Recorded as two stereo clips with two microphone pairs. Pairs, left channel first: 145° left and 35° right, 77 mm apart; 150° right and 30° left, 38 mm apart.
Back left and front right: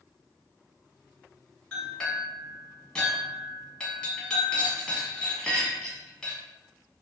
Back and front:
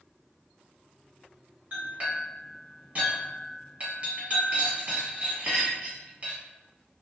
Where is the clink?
70° left, 1.3 m.